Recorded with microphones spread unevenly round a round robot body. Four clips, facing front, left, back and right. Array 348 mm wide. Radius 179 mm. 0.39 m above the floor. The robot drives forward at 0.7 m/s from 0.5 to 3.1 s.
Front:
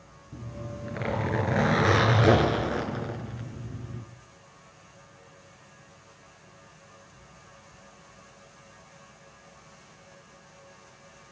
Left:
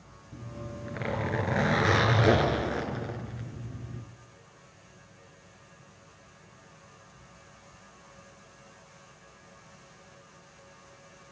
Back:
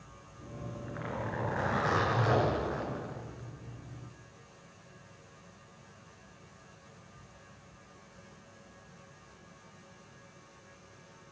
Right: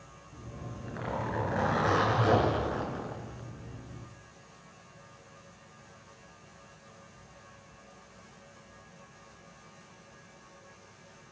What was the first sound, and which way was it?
A zipper, 25° left.